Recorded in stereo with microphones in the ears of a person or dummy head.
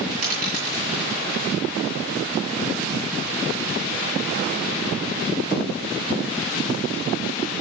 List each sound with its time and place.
0.2 s a dropped coin: 45° right (ahead or behind), 3.5 m